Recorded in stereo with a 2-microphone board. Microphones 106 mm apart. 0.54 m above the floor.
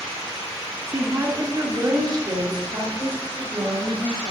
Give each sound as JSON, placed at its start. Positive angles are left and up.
{"t": 0.9, "sound": "a woman speaking", "side_deg": -20, "distance_m": 1.2}